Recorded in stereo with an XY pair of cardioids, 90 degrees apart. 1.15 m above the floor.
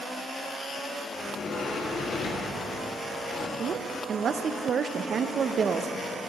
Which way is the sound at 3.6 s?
55° right.